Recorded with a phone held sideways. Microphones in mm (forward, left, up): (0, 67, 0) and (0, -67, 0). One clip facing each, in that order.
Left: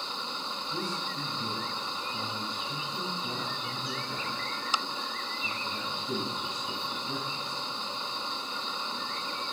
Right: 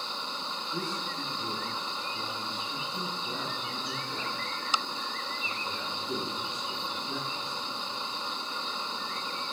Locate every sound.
0.7 s a man speaking: 80° left, 7 m